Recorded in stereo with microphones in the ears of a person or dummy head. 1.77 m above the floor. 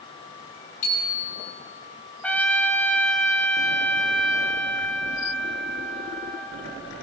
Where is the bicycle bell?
40° left (ahead or behind), 6 m.